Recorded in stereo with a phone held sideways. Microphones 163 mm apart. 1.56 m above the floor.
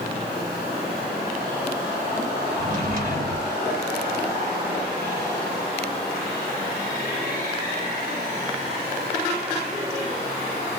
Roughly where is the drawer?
Right.